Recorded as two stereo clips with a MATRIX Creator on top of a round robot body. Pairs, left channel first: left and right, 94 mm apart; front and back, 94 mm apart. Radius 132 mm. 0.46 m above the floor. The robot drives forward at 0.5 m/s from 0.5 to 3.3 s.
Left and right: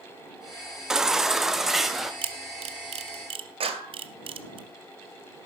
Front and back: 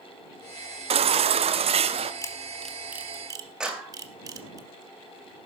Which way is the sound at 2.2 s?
60° right.